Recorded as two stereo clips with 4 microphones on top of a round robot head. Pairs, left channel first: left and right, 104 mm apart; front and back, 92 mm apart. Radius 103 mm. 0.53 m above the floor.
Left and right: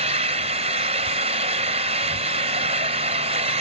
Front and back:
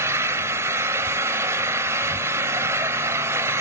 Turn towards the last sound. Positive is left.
turn(degrees=-115)